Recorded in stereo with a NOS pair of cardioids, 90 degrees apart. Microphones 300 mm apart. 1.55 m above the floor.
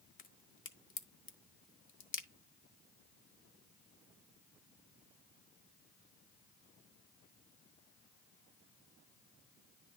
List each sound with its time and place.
0.2 s a crack: 40° left, 1.4 m